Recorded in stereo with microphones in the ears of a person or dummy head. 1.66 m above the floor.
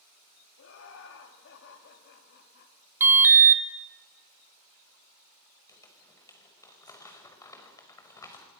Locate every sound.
0.6 s laughter: 80° left, 4.5 m; by 2.7 s 60° left (ahead or behind), 4 m
3.0 s an alarm: 10° right (ahead or behind), 1.1 m
5.7 s crumpling: 15° left (ahead or behind), 5 m